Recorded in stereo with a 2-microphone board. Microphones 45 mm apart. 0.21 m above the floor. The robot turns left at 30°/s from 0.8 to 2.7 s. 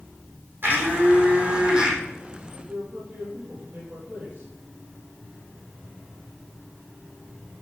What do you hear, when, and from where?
0.6 s a blender: 130° right, 3.5 m; by 2.0 s 165° right, 3.5 m
2.5 s a man speaking: 40° right (ahead or behind), 6.5 m; by 4.5 s 35° right (ahead or behind), 6.5 m